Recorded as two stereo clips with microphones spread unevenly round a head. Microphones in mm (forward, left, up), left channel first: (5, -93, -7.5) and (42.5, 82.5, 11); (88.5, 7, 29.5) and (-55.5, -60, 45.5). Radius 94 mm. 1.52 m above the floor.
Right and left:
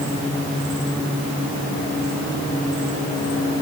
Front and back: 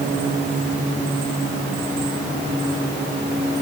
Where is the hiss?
I don't hear a hiss.